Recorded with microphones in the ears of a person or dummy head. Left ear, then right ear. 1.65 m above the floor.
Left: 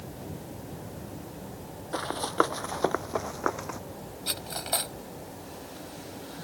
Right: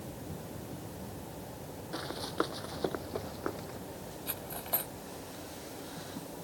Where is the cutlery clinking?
30° left (ahead or behind).